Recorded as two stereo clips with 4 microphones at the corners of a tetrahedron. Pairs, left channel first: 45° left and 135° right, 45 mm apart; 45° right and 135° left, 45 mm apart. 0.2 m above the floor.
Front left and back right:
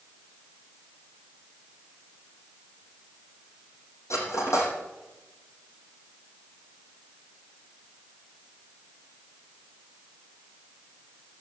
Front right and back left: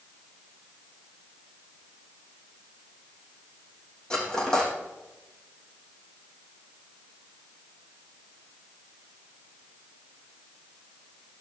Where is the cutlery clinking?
30° left, 5.5 m.